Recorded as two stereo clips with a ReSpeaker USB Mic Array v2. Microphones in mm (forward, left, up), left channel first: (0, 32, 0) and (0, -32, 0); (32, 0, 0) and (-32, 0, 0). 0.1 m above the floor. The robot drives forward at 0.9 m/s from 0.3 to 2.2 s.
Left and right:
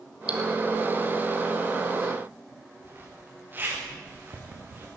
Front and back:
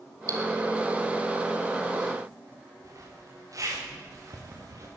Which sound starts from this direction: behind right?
A zipper, at 2.8 s.